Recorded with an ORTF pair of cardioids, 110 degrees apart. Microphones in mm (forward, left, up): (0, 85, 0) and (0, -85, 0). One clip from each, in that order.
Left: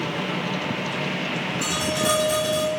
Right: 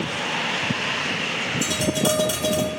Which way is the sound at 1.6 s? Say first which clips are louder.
Left 1 dB; 50° right.